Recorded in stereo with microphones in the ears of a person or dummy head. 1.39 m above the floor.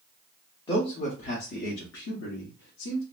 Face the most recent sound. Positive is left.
turn(degrees=75)  # may be behind; listen again after turning